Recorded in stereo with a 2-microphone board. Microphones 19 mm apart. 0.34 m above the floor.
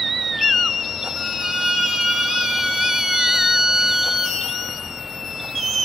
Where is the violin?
40° right (ahead or behind), 2.5 m.